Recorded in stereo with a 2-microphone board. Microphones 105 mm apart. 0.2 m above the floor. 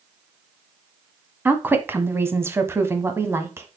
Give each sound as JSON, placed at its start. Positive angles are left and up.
{"t": 1.4, "sound": "a woman speaking", "side_deg": -15, "distance_m": 1.3}